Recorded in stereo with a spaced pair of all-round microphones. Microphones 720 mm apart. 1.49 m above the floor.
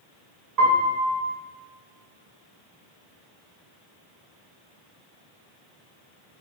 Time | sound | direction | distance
0.6 | a piano | 60° right (ahead or behind) | 3 m